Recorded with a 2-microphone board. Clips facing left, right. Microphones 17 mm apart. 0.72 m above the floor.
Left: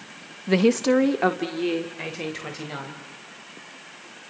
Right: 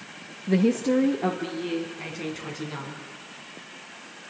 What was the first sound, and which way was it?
A woman speaking, 35° left (ahead or behind).